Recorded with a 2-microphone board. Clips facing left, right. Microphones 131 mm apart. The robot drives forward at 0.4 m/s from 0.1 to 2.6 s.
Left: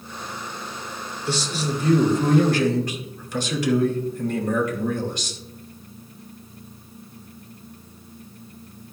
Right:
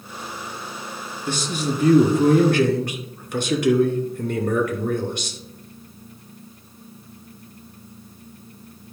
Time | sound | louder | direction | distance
1.3 | a man speaking | right 1 dB | 50° right (ahead or behind) | 2.5 m